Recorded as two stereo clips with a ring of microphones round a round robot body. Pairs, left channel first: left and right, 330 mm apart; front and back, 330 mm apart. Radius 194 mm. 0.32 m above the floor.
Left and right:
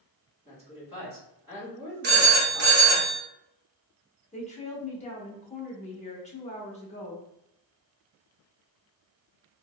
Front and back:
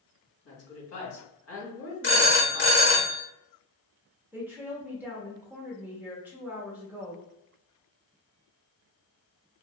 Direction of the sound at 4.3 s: 110° left.